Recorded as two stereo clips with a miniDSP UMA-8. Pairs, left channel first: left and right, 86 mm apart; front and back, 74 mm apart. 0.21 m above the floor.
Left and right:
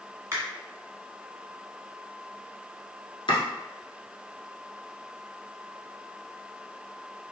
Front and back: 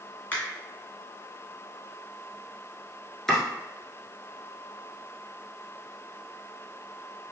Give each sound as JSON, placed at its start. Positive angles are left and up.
{"t": 0.3, "sound": "a finger snap", "azimuth_deg": -55, "distance_m": 1.5}
{"t": 3.3, "sound": "chopping", "azimuth_deg": 85, "distance_m": 1.1}